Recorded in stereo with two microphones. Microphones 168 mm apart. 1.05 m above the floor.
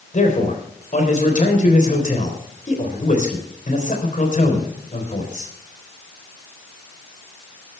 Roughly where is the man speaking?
Left.